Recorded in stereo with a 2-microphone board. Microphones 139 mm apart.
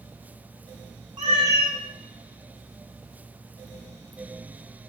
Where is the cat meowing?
35° right (ahead or behind), 1.0 m.